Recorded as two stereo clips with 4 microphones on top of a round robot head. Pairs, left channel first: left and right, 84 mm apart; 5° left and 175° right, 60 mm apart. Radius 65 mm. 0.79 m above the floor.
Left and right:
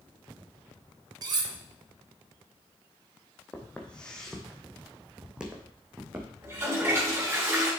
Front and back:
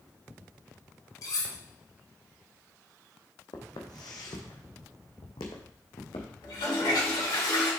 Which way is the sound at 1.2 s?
50° right.